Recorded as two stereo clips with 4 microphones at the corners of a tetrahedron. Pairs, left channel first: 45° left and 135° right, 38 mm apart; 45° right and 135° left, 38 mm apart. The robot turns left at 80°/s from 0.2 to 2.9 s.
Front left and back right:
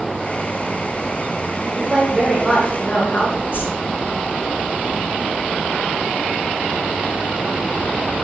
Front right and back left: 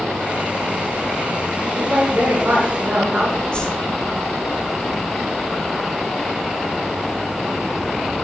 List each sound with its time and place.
1.7 s a woman speaking: 165° right, 5.5 m; by 3.4 s 95° left, 5.5 m
3.5 s a whoosh: 20° left, 6.5 m